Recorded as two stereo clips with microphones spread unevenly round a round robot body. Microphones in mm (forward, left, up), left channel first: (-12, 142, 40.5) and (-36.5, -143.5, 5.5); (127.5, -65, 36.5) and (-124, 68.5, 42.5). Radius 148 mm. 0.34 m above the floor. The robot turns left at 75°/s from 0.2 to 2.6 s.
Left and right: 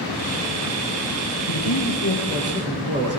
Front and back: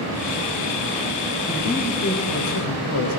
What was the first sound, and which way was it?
A man speaking, 55° left.